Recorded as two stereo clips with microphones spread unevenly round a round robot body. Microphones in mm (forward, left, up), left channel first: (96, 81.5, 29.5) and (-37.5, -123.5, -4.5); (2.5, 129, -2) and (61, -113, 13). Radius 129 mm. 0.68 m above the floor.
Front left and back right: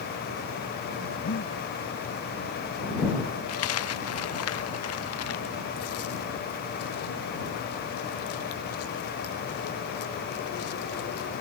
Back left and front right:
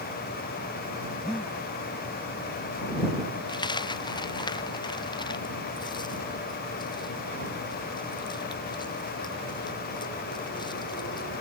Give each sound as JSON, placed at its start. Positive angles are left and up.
{"t": 1.2, "sound": "breathing", "azimuth_deg": 15}
{"t": 3.5, "sound": "a dropped coin", "azimuth_deg": 30}